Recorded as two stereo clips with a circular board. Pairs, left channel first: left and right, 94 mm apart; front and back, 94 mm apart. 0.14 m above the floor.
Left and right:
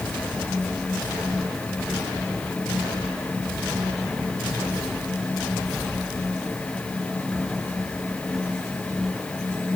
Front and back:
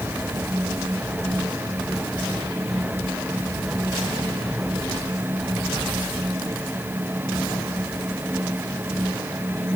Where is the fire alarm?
No fire alarm in this recording.